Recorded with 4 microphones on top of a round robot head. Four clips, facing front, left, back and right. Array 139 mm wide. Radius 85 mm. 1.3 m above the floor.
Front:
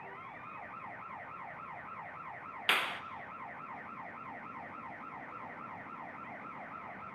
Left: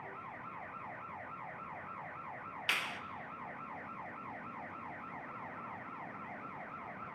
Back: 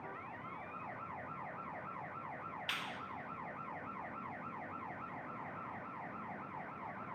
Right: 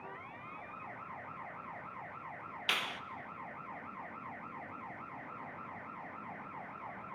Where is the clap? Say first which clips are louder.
Right 1 dB, front 13 dB; 20° right, 0.6 m.